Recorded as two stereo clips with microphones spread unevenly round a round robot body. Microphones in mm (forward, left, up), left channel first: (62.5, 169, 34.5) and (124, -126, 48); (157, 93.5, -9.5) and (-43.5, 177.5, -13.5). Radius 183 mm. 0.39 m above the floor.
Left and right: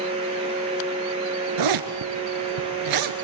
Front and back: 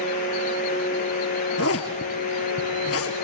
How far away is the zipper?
About 1.9 m.